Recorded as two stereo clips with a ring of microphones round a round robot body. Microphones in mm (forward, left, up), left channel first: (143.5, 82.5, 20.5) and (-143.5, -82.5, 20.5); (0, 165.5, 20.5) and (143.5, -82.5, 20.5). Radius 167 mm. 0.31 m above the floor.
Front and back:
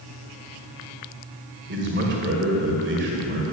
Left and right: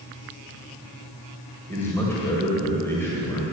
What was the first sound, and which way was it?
A man speaking, 165° right.